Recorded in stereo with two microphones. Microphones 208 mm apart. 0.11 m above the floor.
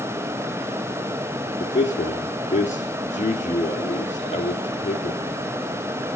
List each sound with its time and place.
1.6 s a man speaking: 35° left (ahead or behind), 2.5 m